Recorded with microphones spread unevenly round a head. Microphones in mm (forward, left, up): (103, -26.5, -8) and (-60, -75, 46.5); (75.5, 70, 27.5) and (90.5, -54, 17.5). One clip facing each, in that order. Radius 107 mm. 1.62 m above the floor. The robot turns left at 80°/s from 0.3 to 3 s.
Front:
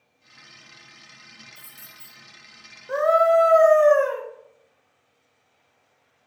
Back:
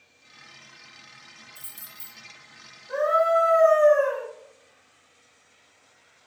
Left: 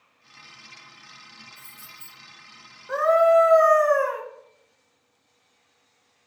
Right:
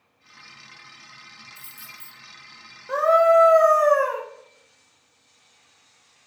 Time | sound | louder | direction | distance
1.6 | keys jangling | even, right 1 dB | 120° right | 0.8 m
2.9 | a scream | front 4 dB, right 1 dB | 5° right | 0.6 m